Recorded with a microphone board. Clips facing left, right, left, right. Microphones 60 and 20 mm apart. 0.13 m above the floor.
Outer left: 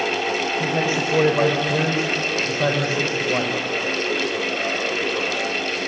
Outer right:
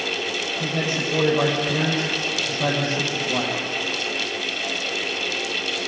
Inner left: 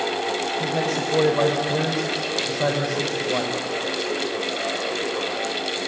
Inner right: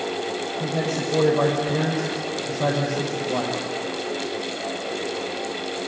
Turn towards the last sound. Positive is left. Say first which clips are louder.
# outer left 1 dB, inner left 2 dB
turn(degrees=25)  # may be behind; listen again after turning